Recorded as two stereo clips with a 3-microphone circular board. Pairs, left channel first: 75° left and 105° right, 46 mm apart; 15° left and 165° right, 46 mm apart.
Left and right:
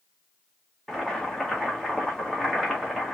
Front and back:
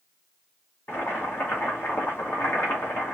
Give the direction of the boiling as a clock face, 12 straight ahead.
12 o'clock.